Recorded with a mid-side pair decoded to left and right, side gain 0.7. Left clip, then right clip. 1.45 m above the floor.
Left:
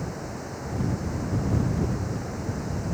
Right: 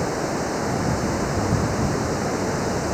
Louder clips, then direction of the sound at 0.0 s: Right 11 dB; 45° right.